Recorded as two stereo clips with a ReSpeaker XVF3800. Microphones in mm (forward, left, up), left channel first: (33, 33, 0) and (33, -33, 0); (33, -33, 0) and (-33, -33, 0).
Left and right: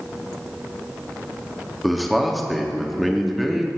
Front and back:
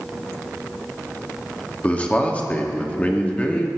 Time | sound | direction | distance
1.8 | a man speaking | straight ahead | 1.0 m